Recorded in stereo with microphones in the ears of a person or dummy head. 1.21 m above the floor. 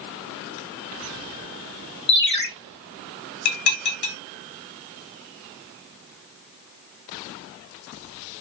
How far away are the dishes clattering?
About 0.9 m.